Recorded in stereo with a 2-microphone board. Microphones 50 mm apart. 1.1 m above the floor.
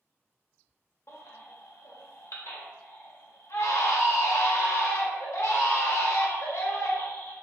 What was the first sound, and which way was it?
A baby crying, 65° left (ahead or behind).